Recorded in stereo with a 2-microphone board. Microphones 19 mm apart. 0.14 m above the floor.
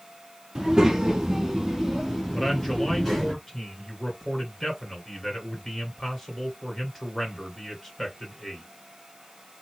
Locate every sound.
0.6 s a child speaking: 35° right (ahead or behind), 1.1 m; by 3.3 s 5° right (ahead or behind), 1.3 m
2.3 s a man speaking: 15° left (ahead or behind), 2 m